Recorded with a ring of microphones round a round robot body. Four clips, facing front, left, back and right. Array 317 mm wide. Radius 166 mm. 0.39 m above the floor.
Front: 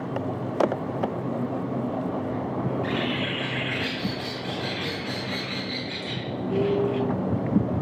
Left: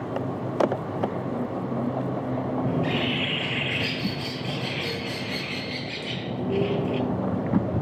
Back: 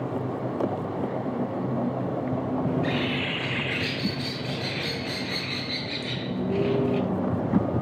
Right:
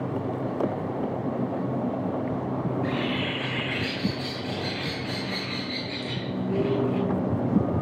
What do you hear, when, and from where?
2.7 s a bird: 130° left, 2 m